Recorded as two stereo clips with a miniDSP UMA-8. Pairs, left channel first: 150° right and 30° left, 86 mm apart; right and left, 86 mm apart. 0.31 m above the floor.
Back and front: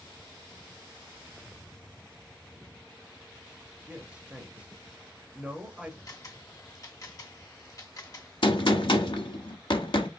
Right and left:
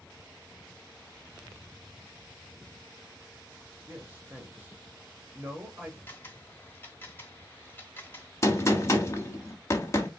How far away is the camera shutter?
About 1.0 m.